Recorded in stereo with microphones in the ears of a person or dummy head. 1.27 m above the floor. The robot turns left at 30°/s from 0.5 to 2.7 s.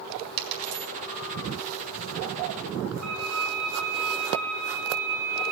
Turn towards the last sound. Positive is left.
turn(degrees=-40)  # may be behind; listen again after turning